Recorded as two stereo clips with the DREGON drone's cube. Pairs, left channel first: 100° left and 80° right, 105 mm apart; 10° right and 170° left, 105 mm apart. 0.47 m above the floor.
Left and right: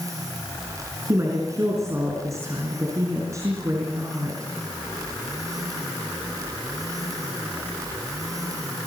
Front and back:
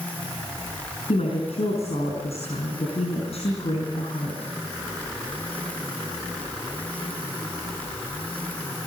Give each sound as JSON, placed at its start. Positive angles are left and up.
{"t": 1.1, "sound": "a woman speaking", "azimuth_deg": -20, "distance_m": 4.5}